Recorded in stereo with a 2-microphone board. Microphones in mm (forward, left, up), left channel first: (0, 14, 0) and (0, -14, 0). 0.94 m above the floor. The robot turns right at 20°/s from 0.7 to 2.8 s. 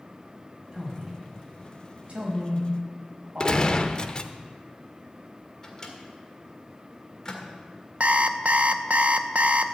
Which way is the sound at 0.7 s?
20° right (ahead or behind).